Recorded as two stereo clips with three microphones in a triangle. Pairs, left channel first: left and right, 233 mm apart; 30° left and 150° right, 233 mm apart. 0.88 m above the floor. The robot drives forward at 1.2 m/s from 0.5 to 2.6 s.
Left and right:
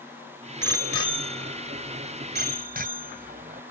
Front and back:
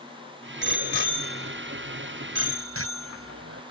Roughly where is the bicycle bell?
Right.